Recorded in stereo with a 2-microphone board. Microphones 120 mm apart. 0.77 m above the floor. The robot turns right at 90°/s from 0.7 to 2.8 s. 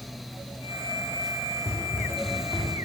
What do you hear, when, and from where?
1.6 s running footsteps: 75° left (ahead or behind), 3.5 m; by 2.7 s 10° left (ahead or behind), 3 m